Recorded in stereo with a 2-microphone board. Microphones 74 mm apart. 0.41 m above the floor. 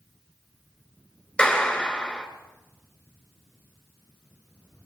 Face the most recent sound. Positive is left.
turn(degrees=10)  # may be behind; listen again after turning